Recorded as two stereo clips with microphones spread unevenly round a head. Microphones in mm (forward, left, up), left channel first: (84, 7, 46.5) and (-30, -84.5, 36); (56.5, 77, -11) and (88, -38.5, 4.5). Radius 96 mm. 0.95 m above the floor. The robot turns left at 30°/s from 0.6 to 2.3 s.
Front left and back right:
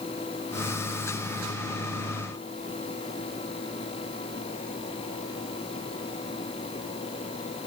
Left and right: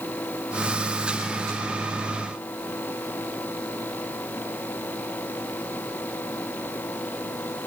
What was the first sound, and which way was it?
Only background noise.